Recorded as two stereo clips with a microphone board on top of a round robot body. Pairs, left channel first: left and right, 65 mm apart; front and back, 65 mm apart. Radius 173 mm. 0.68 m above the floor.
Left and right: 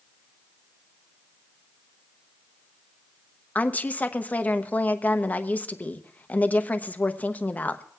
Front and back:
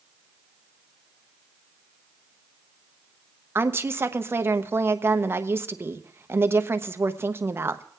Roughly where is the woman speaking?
Behind left.